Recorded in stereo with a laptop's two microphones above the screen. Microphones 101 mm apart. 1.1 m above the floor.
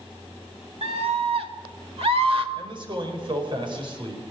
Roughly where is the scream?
Right.